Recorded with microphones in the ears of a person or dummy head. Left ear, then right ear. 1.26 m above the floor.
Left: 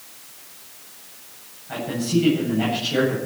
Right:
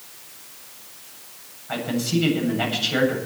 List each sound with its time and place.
1.7 s a man speaking: 40° right (ahead or behind), 8.5 m